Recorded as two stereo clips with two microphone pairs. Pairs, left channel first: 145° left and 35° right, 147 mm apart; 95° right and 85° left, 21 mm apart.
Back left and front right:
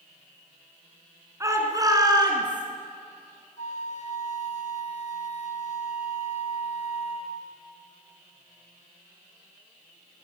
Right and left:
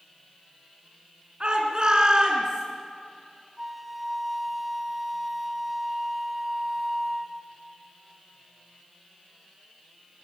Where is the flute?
160° left, 1.4 m.